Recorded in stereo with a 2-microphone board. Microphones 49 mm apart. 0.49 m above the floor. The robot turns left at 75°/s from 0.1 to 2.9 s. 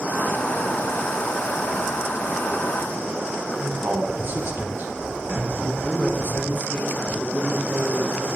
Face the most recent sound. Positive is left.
turn(degrees=-60)  # may be behind; listen again after turning